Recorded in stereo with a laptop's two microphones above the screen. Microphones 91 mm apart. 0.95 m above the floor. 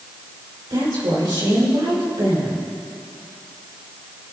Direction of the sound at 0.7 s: 60° right (ahead or behind).